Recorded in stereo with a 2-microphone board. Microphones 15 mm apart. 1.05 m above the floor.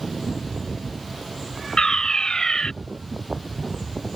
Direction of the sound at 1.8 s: 45° left (ahead or behind).